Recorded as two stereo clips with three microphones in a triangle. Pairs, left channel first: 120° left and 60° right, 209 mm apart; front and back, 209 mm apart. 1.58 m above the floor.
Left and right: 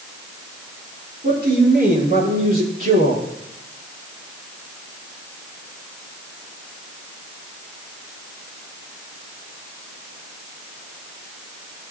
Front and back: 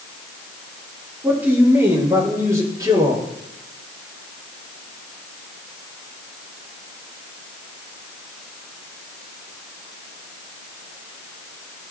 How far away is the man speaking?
About 5 m.